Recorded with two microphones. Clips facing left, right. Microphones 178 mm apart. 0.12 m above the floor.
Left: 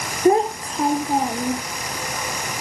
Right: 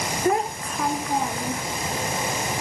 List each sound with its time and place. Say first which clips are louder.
0.2 s a child speaking: left 8 dB; 30° left (ahead or behind)